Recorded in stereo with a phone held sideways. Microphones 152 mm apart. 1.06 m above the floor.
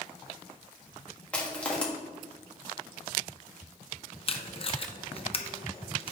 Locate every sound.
1.3 s crushing: 10° left (ahead or behind), 1.5 m
4.3 s tape being pulled: 40° left (ahead or behind), 0.6 m